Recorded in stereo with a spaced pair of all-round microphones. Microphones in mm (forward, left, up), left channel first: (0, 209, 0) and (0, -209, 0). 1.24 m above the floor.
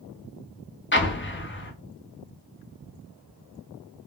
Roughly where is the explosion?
Left.